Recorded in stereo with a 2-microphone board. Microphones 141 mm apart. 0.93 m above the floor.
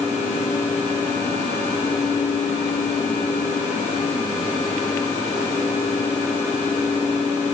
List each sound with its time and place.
Only background noise.